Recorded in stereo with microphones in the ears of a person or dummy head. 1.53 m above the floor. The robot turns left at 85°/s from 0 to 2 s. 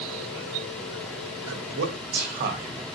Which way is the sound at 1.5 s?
80° right.